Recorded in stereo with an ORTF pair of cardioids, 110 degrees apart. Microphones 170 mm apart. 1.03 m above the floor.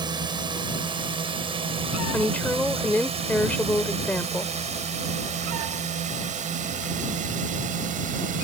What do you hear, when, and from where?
0.0 s a drone: 25° right; by 8.4 s 50° right
2.1 s a woman speaking: 10° left